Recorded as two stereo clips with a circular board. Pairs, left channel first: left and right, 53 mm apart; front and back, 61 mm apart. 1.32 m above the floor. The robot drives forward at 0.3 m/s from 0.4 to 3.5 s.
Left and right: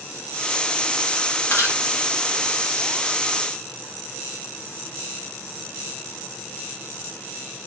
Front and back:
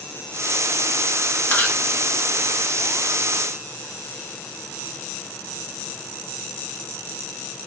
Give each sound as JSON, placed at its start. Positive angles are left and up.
{"t": 1.5, "sound": "chewing", "azimuth_deg": 60, "distance_m": 1.7}